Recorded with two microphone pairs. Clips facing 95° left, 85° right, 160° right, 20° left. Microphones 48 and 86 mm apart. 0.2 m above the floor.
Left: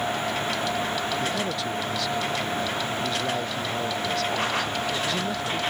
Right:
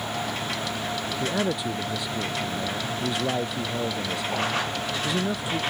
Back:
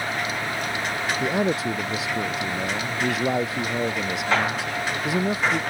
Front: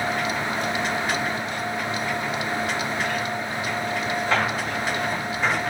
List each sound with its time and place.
1.2 s a man speaking: 160° right